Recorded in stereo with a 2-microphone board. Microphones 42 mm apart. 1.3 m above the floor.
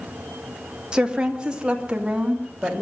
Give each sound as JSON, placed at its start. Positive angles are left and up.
{"t": 0.9, "sound": "a woman speaking", "side_deg": -20, "distance_m": 1.6}